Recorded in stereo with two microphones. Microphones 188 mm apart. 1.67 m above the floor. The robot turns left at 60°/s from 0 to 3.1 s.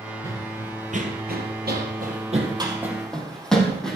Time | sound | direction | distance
0.2 | running footsteps | 15° right (ahead or behind) | 2 m